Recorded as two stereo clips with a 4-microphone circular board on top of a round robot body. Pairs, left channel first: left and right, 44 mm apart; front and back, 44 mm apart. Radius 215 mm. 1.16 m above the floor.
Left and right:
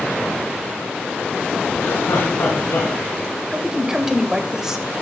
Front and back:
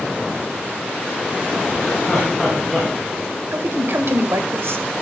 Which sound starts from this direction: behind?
A man speaking, at 3.5 s.